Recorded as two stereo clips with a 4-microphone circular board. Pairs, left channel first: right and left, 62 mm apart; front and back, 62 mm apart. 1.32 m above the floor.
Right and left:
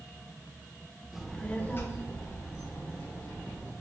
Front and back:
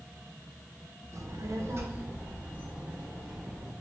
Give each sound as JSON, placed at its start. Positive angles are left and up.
{"t": 1.1, "sound": "a child speaking", "azimuth_deg": 175, "distance_m": 0.6}